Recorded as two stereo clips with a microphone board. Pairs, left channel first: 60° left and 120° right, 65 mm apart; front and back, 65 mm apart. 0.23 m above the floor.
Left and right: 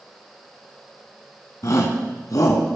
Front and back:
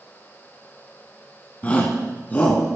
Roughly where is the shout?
Ahead left.